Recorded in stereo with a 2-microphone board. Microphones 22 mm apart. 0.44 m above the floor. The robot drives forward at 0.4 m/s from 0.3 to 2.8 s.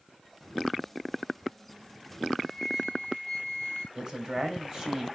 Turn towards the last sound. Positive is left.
turn(degrees=-35)  # may be behind; listen again after turning